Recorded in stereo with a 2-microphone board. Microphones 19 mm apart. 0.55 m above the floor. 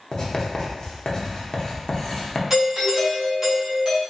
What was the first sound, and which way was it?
Writing, 40° left (ahead or behind).